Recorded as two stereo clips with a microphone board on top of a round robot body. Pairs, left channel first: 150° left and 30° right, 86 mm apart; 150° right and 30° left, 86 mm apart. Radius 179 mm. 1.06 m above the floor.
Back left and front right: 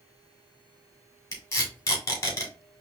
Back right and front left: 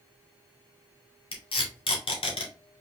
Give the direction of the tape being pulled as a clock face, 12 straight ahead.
5 o'clock.